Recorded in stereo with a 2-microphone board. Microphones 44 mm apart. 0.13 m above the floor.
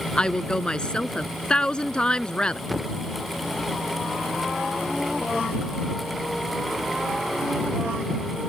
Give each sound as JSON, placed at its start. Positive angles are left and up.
{"t": 0.1, "sound": "a woman speaking", "side_deg": 20}
{"t": 2.7, "sound": "a thud", "side_deg": 0}